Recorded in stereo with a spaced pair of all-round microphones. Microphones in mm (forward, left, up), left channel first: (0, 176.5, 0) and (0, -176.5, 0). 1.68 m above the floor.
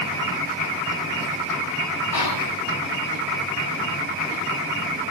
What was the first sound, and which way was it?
Whispering, 80° left.